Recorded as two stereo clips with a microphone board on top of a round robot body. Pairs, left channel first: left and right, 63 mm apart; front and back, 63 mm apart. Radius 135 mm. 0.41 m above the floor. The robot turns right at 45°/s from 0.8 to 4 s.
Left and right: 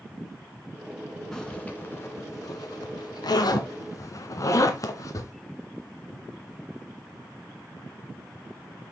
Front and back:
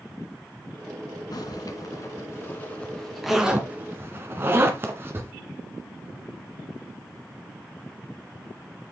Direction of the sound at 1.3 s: 5° left.